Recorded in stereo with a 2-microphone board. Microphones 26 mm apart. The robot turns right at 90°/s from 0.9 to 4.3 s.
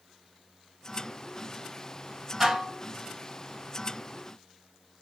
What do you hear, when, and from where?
2.4 s dishes clattering: 160° right, 1.3 m; by 2.8 s 125° right, 1.3 m